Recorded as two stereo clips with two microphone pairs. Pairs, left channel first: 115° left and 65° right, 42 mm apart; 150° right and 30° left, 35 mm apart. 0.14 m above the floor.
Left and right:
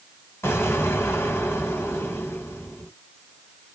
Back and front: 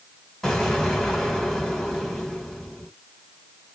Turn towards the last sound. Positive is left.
turn(degrees=135)